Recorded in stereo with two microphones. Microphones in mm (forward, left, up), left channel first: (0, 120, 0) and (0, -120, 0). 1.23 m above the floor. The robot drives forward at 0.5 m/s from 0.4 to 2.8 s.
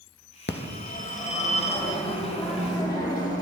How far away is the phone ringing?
About 0.6 m.